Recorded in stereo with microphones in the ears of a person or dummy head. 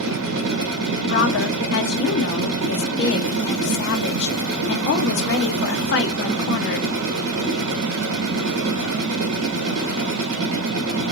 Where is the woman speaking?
65° left (ahead or behind), 0.7 m.